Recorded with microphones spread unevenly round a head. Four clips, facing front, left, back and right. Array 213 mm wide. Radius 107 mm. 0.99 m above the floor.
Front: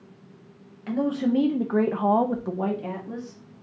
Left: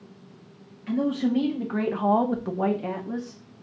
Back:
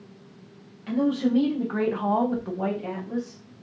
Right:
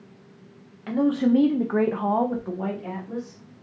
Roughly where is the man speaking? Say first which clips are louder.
Right 4 dB, back 1 dB; right.